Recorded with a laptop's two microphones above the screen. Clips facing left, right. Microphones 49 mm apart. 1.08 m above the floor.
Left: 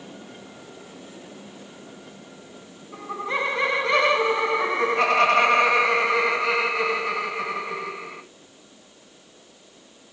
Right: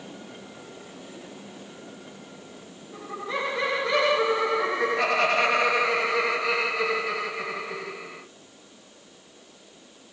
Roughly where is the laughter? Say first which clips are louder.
Left 4 dB; left.